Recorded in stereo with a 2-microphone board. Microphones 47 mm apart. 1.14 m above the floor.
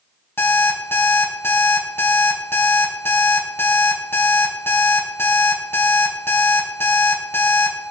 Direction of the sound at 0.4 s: 60° left (ahead or behind).